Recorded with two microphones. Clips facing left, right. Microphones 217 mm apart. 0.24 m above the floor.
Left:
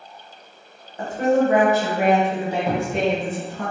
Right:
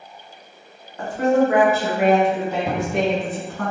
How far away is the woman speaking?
About 1.3 m.